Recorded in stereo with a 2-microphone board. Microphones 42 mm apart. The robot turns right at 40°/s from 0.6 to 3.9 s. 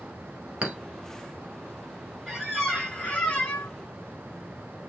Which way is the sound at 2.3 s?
10° right.